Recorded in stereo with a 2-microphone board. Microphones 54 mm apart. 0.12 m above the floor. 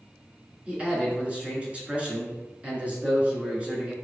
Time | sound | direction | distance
0.7 | a man speaking | 20° right (ahead or behind) | 1.5 m